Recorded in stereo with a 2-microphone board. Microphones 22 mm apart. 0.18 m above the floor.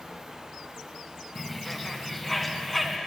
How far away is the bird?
About 1.7 m.